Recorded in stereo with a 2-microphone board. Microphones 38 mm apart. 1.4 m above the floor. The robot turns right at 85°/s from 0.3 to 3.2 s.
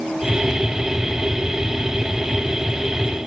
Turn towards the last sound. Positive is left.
No sound to turn to.